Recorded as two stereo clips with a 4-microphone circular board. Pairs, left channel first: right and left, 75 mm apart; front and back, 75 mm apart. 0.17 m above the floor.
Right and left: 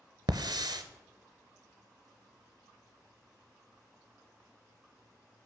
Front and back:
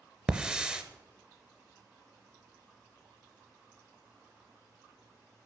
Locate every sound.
0.3 s a hiss: 105° left, 0.5 m